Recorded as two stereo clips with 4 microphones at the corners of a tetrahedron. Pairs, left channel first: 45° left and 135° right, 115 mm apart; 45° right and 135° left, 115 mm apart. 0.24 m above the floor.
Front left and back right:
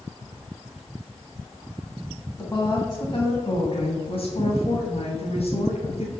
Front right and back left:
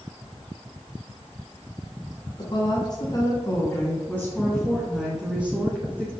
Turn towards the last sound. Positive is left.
turn(degrees=65)